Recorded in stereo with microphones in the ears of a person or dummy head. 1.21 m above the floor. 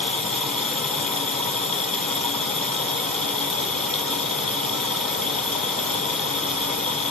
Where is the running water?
5° left (ahead or behind), 2.5 m.